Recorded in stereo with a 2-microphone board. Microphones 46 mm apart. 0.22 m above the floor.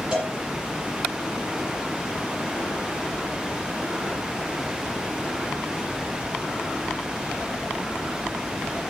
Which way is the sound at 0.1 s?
20° right (ahead or behind).